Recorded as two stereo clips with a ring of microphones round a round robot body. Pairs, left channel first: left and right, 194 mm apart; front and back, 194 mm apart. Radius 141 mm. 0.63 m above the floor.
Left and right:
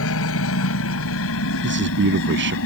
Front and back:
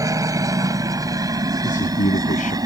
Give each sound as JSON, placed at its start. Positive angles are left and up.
{"t": 0.0, "sound": "a helicopter", "azimuth_deg": 105}
{"t": 1.6, "sound": "a man speaking", "azimuth_deg": -65}